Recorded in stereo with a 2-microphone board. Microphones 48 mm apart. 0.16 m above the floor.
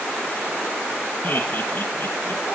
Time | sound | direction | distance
1.2 | laughter | 45° left (ahead or behind) | 2.5 m